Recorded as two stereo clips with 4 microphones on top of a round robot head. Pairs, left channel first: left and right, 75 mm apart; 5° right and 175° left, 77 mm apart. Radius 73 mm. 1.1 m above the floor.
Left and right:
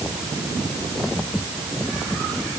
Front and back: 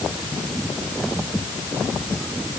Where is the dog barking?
I don't hear a dog barking.